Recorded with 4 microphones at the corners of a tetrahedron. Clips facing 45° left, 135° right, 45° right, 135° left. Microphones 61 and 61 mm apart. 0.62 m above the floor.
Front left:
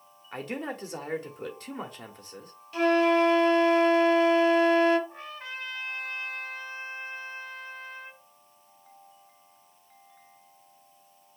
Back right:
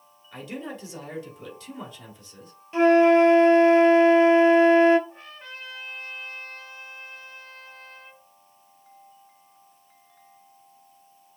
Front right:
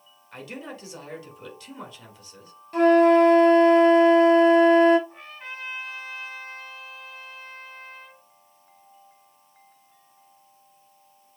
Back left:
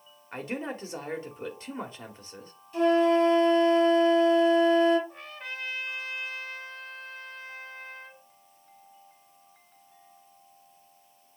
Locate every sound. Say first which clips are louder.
0.3 s a man speaking: front left 1 dB, back left 4 dB; 80° left, 1.8 m
2.7 s a flute: back right 6 dB, front right 6 dB; 75° right, 0.9 m
5.1 s a trumpet: front left 3 dB, even; 45° left, 4 m